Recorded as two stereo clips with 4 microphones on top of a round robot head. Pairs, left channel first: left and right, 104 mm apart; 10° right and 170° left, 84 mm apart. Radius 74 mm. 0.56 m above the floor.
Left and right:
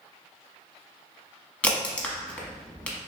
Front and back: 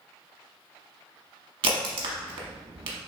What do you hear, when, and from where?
1.6 s a crack: 165° left, 0.7 m